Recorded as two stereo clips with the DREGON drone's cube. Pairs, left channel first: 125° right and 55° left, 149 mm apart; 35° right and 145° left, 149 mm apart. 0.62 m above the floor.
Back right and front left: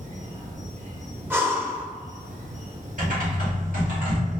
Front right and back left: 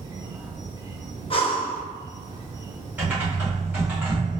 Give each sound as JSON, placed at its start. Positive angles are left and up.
{"t": 0.0, "sound": "an insect", "azimuth_deg": 85, "distance_m": 0.7}
{"t": 1.3, "sound": "breathing", "azimuth_deg": -10, "distance_m": 0.6}
{"t": 3.0, "sound": "typing on a keyboard", "azimuth_deg": 70, "distance_m": 1.6}